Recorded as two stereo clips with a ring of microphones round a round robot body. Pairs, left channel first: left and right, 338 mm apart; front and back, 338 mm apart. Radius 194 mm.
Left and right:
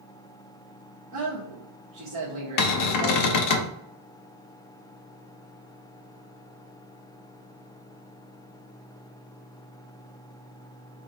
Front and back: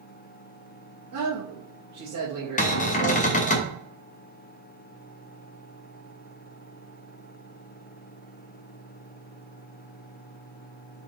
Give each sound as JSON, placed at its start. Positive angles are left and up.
{"t": 1.1, "sound": "a man speaking", "azimuth_deg": -130, "distance_m": 0.9}
{"t": 2.6, "sound": "a cupboard door", "azimuth_deg": 65, "distance_m": 0.5}